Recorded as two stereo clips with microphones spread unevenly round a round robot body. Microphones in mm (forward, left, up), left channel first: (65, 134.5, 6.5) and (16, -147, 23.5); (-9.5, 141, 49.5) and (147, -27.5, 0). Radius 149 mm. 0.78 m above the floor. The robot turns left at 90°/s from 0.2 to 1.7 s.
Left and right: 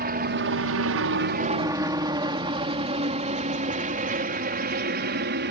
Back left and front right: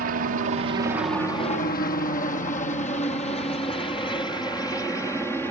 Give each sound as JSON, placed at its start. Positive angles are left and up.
{"t": 0.0, "sound": "a helicopter", "azimuth_deg": -55}